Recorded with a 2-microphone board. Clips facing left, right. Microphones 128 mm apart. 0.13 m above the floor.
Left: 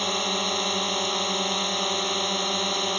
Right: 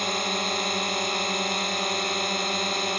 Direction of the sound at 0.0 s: 5° left (ahead or behind).